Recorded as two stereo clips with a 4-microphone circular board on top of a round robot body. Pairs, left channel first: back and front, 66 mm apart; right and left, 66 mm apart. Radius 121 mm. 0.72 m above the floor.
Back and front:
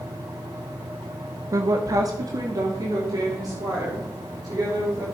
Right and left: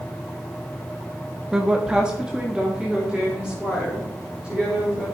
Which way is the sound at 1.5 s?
10° left.